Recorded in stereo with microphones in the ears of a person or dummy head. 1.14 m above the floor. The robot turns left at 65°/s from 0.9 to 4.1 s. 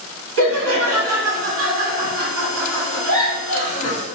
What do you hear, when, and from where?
0.4 s laughter: 85° right, 1.8 m; by 4.0 s 75° left, 1.8 m